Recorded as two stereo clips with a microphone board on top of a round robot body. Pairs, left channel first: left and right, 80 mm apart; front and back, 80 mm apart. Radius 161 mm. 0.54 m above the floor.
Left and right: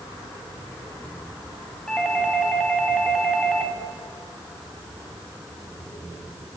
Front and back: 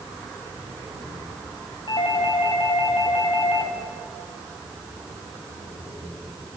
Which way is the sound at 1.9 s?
5° left.